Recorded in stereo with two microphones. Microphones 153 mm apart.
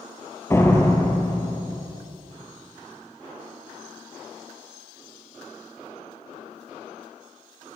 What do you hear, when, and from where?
0.5 s a door slam: 20° left (ahead or behind), 3 m